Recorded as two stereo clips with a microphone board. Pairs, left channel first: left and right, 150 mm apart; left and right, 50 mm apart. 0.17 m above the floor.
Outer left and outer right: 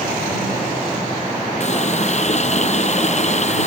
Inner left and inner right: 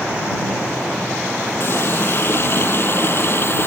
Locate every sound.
1.6 s a running tap: 50° left (ahead or behind)